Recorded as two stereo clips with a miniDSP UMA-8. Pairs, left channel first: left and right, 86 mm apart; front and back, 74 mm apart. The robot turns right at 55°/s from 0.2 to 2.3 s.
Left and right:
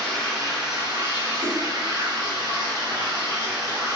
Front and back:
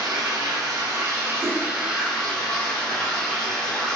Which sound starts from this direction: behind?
Running water, at 0.0 s.